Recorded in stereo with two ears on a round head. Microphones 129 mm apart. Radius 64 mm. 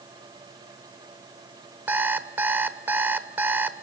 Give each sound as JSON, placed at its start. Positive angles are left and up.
{"t": 1.9, "sound": "an alarm clock", "side_deg": -15, "distance_m": 1.0}